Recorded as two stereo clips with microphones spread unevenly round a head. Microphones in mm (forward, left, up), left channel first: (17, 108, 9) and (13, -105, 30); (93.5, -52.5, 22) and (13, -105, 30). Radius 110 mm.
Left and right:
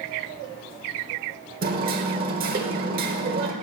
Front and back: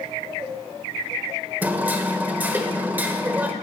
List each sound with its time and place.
1.6 s hammering: 90° right, 1.4 m